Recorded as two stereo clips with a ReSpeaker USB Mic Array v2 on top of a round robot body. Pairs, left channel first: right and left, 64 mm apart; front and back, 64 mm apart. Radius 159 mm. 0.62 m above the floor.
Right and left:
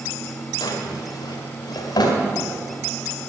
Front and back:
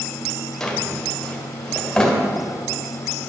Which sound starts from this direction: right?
A drawer, at 0.6 s.